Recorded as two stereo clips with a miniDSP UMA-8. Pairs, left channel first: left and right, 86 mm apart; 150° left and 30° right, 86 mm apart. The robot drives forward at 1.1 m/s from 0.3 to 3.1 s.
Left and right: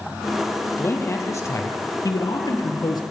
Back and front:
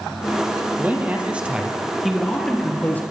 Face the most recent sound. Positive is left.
turn(degrees=90)